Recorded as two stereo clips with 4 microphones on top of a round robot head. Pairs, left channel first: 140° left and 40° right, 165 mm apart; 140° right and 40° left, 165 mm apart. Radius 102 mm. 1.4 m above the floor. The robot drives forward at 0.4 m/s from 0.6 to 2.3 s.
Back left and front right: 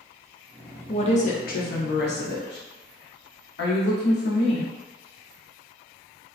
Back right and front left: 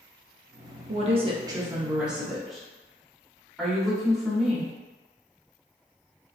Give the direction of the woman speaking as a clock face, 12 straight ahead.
9 o'clock.